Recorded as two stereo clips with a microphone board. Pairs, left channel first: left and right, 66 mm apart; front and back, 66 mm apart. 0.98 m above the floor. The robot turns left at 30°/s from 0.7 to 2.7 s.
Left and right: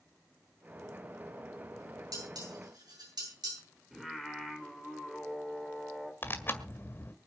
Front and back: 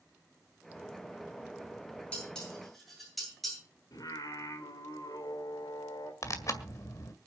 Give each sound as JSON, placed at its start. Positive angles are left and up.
{"t": 2.1, "sound": "dishes clattering", "azimuth_deg": -70, "distance_m": 9.5}
{"t": 3.9, "sound": "singing", "azimuth_deg": -5, "distance_m": 4.0}
{"t": 6.2, "sound": "tearing paper", "azimuth_deg": 30, "distance_m": 1.8}